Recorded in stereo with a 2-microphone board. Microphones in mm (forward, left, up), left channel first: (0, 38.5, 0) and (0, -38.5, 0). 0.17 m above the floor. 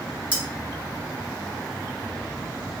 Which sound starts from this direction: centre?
Cutlery clinking, at 0.3 s.